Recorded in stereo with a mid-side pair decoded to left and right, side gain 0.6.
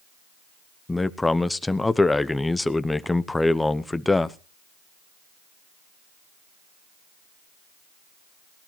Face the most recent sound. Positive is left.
turn(degrees=15)